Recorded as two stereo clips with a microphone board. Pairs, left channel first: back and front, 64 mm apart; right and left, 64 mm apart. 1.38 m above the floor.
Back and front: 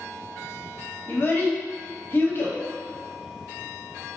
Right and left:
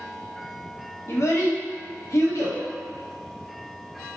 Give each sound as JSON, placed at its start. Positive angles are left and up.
{"t": 1.1, "sound": "a child speaking", "azimuth_deg": -125, "distance_m": 1.0}